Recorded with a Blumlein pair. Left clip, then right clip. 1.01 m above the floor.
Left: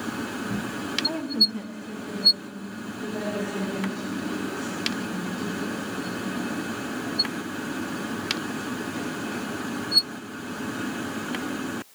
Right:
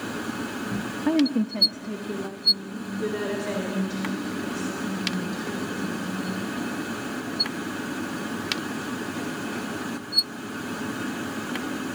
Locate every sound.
1.1 s a woman speaking: 25° right, 0.7 m; by 6.5 s 15° right, 4.5 m